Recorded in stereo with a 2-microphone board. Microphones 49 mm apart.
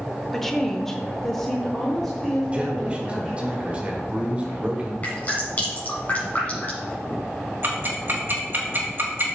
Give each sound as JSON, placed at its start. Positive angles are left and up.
{"t": 0.3, "sound": "a woman speaking", "side_deg": 5, "distance_m": 1.0}
{"t": 2.5, "sound": "a man speaking", "side_deg": -25, "distance_m": 1.6}
{"t": 5.0, "sound": "dripping", "side_deg": 30, "distance_m": 3.5}
{"t": 7.6, "sound": "ticking", "side_deg": -45, "distance_m": 2.5}